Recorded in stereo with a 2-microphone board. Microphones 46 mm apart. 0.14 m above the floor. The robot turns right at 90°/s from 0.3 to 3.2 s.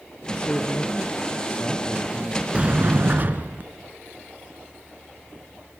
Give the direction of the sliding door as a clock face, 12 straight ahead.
5 o'clock.